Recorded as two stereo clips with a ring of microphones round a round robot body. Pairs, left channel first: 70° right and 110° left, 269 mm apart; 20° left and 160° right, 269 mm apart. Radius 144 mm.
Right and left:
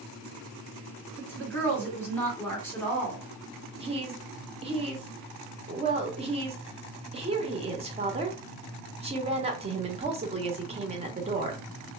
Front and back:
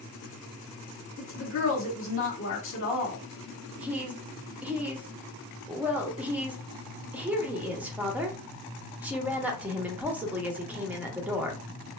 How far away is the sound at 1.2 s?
About 1.7 m.